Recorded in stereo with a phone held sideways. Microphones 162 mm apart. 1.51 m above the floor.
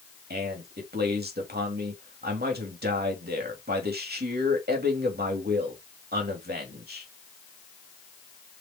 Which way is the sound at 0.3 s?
80° right.